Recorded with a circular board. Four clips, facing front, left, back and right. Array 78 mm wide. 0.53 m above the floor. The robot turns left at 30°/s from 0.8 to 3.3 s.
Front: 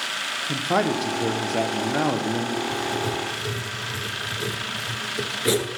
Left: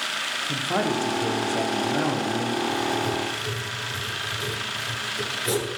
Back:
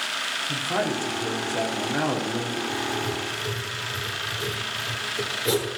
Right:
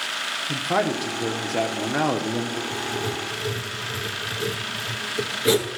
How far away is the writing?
About 1.5 m.